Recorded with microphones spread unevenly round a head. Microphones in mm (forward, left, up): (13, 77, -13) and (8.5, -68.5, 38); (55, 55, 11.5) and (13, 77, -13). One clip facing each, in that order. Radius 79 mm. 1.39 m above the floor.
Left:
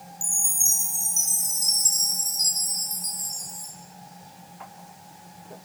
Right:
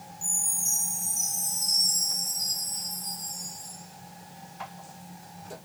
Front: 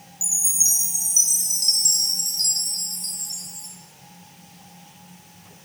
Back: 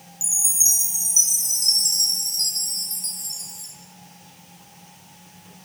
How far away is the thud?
I don't hear a thud.